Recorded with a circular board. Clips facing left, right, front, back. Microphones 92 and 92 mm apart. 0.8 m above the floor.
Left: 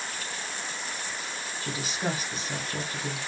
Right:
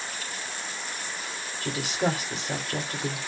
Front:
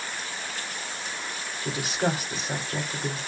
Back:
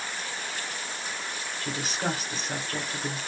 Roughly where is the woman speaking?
Right.